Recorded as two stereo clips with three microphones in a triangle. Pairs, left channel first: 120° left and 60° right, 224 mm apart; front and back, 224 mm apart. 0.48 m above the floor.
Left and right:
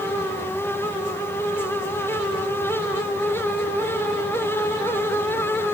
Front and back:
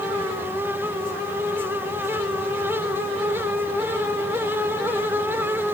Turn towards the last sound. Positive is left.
No sound to turn to.